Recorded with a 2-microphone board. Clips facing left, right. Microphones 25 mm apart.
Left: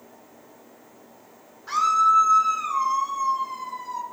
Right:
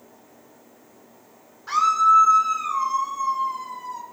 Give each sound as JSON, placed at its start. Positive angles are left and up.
{"t": 1.7, "sound": "a scream", "side_deg": -15, "distance_m": 1.0}